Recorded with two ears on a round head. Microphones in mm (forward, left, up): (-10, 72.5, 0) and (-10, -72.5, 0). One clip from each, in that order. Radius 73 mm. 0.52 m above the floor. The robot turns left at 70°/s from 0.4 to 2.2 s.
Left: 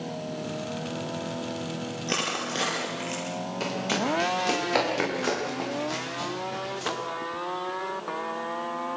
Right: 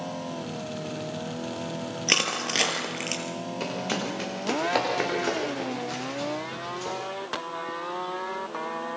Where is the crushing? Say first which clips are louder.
Right 5 dB; 70° right (ahead or behind), 4 m; by 3.2 s 60° right (ahead or behind), 4 m.